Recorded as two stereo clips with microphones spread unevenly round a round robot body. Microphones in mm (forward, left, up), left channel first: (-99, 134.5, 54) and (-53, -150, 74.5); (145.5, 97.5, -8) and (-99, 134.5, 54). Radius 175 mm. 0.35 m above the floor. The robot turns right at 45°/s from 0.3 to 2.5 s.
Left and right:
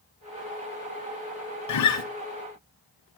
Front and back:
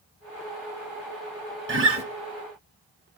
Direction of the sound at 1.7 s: 120° left.